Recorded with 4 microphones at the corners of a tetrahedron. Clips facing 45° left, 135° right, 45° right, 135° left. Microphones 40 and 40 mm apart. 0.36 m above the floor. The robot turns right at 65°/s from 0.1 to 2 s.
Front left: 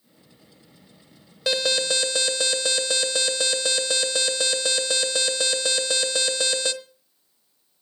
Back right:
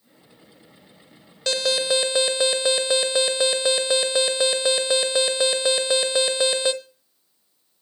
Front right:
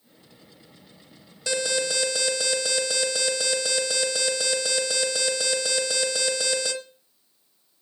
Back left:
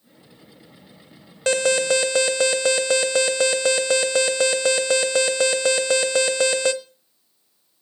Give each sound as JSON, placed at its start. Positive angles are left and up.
{"t": 1.5, "sound": "an alarm", "azimuth_deg": 125, "distance_m": 1.0}